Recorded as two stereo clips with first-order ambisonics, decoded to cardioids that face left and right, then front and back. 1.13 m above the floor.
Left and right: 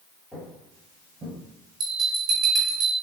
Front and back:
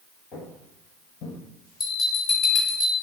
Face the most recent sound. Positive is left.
turn(degrees=-65)